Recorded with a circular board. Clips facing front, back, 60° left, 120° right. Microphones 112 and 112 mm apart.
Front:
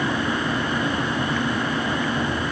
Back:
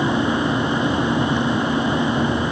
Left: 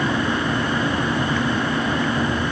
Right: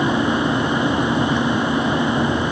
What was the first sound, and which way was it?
Only background noise.